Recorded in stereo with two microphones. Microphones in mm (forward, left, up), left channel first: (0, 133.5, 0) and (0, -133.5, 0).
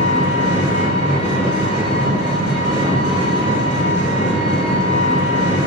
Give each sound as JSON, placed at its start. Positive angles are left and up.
{"t": 0.0, "sound": "an engine running", "side_deg": 25, "distance_m": 0.9}